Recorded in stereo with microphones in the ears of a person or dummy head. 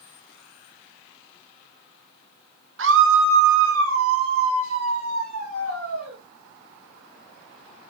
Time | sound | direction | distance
2.8 | a scream | 55° right (ahead or behind) | 0.6 m